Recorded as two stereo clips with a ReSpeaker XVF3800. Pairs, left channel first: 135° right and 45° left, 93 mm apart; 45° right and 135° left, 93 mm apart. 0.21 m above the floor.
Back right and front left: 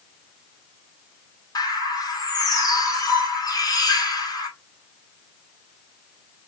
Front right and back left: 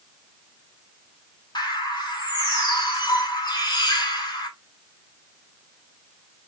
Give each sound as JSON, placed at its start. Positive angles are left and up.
{"t": 1.6, "sound": "a bird", "azimuth_deg": -85, "distance_m": 1.1}